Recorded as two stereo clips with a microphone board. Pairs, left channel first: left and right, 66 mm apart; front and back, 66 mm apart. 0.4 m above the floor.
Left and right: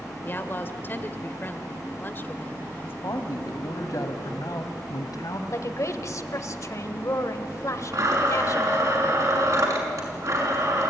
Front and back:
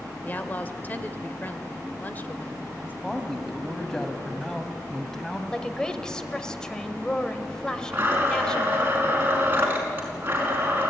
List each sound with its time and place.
0.2 s a woman speaking: 50° left, 1.5 m
3.0 s a man speaking: 80° left, 2.5 m
5.5 s a woman speaking: 75° left, 1.5 m
7.9 s a blender: 120° right, 5 m